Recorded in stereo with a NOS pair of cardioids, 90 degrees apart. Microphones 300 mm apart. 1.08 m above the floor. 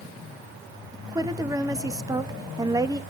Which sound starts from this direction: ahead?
A woman speaking, at 0.9 s.